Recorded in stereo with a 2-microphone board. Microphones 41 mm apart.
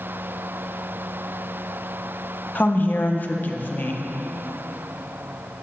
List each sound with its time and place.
2.5 s a woman speaking: 45° left (ahead or behind), 0.8 m